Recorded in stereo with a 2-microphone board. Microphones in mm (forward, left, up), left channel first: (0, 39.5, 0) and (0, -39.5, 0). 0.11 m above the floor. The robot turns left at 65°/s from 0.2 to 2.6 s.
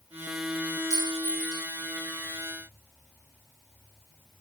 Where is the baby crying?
I don't hear a baby crying.